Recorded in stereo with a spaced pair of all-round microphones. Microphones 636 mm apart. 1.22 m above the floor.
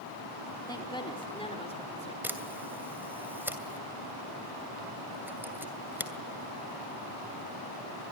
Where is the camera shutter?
5° right (ahead or behind), 2.5 m.